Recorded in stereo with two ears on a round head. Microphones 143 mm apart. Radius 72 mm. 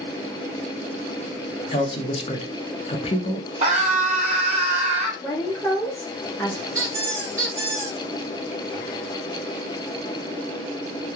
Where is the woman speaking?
15° left (ahead or behind), 0.6 m.